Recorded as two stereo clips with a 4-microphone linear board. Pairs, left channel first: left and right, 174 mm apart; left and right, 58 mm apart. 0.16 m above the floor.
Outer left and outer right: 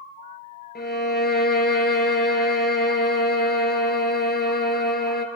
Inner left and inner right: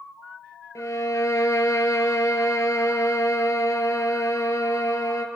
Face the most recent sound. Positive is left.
turn(degrees=70)  # may be behind; listen again after turning